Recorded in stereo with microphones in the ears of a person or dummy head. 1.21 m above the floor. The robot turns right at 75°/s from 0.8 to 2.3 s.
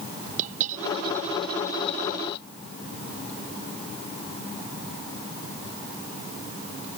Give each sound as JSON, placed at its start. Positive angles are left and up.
{"t": 0.4, "sound": "a dropped coin", "azimuth_deg": -45}